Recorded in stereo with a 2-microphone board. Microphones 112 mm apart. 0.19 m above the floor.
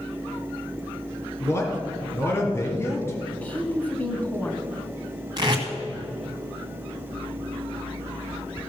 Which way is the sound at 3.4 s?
10° left (ahead or behind).